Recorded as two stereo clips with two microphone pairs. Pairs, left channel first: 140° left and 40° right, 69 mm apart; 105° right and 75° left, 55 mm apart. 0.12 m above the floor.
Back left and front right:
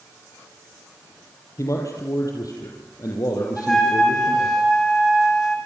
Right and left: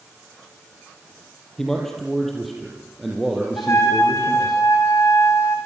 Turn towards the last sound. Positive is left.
turn(degrees=-135)